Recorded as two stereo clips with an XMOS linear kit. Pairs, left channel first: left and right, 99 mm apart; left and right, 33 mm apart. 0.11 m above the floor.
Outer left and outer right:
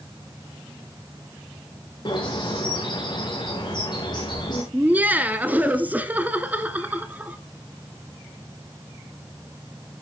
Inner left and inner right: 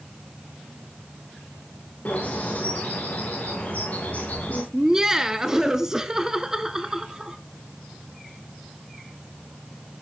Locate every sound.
2.0 s a bird: 45° left (ahead or behind), 4.5 m
4.7 s laughter: 15° right (ahead or behind), 1.1 m